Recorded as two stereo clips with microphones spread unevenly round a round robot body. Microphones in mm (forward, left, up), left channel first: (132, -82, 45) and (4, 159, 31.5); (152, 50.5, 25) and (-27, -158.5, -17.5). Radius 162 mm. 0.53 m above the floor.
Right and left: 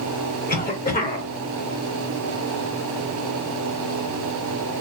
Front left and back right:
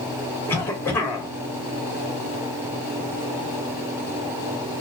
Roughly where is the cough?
Ahead right.